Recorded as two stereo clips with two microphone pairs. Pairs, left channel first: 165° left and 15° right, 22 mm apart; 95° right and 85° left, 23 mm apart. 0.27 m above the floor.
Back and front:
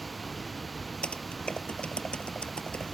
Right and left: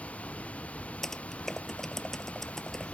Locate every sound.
0.0 s running water: 110° right
1.0 s typing on a keyboard: 165° right